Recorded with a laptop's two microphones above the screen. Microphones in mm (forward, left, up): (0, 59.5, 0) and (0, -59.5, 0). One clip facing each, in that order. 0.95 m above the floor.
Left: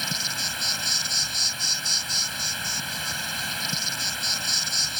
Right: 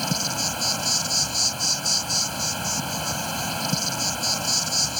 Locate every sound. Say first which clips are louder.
0.0 s an insect: right 7 dB; 35° right (ahead or behind)